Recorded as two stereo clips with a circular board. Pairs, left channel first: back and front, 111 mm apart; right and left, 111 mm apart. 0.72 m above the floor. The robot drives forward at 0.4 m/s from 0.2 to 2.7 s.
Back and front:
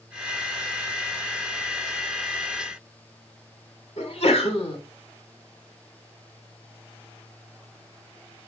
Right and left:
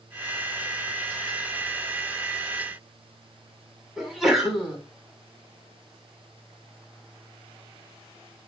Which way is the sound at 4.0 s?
Straight behind.